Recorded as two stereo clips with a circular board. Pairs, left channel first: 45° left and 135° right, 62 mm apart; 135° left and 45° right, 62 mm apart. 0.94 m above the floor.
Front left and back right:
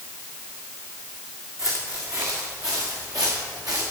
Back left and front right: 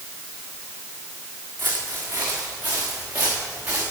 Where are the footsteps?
100° right, 4 m; by 3.8 s 110° right, 5.5 m.